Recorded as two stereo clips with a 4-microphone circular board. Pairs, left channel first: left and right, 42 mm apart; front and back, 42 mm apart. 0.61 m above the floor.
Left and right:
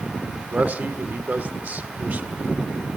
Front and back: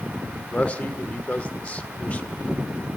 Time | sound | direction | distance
0.5 | a man speaking | 45° right | 1.7 m